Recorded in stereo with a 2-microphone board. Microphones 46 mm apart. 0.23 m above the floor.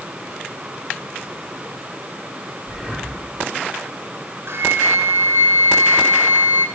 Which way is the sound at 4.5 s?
65° right (ahead or behind).